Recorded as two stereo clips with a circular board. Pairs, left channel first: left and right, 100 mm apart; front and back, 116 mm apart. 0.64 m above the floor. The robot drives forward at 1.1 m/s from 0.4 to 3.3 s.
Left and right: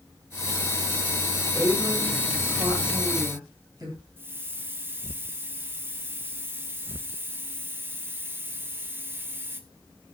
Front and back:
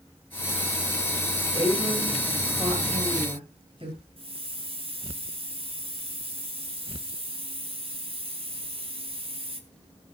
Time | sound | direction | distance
1.5 | a woman speaking | 135° right | 9.5 m
4.2 | a hiss | 155° right | 1.9 m